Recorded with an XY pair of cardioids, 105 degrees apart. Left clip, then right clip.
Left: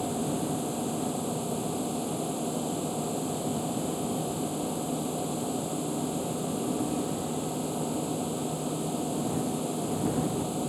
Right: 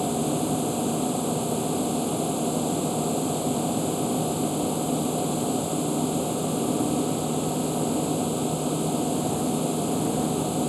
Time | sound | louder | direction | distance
0.0 | a machine running | right 5 dB | 35° right | ?